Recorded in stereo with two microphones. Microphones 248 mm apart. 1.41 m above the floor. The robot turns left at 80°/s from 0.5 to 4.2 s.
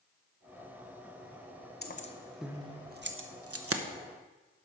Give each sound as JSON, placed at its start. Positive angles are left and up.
{"t": 1.8, "sound": "keys jangling", "side_deg": 40, "distance_m": 0.7}